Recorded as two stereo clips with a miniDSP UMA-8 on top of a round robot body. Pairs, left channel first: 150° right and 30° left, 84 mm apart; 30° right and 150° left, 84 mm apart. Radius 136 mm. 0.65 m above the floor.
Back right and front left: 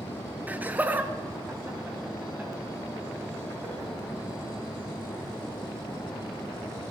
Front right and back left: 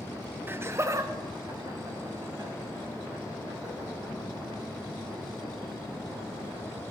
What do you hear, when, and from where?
0.5 s laughter: 95° left, 0.7 m; by 3.9 s 100° left, 3 m